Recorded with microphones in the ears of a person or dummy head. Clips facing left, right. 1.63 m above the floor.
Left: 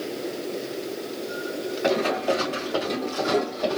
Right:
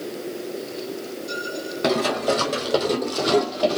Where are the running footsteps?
50° right (ahead or behind), 2.5 m; by 3.8 s 25° right (ahead or behind), 1.8 m.